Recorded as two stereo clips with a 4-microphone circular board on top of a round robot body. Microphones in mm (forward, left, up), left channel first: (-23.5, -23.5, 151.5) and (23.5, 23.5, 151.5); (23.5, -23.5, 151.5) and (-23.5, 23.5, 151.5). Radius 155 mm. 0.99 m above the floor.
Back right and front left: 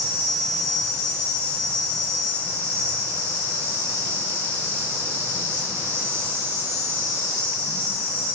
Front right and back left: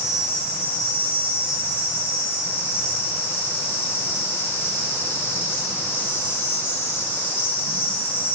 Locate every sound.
0.0 s an insect: straight ahead, 0.9 m